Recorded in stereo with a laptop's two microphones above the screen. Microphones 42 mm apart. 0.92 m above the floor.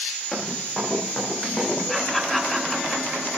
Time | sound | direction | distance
0.3 | running footsteps | 10° left (ahead or behind) | 6.5 m
1.9 | laughter | 5° left (ahead or behind) | 3.5 m